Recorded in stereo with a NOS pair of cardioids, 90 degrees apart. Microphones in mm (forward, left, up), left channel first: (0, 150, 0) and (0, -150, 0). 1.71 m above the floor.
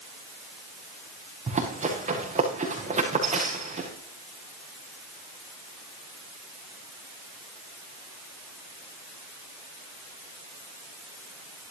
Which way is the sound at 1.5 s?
25° right.